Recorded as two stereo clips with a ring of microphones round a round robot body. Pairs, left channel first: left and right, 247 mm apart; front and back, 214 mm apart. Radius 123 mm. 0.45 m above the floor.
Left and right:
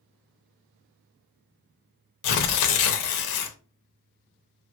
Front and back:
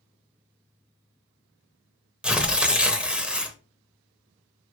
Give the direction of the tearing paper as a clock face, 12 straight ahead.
9 o'clock.